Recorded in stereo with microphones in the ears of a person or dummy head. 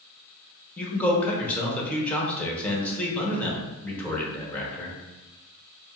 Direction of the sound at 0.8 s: 10° left (ahead or behind).